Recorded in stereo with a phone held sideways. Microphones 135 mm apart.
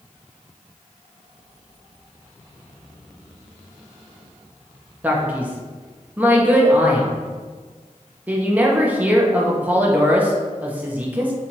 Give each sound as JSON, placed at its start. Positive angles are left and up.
{"t": 5.0, "sound": "a man speaking", "side_deg": -10, "distance_m": 0.8}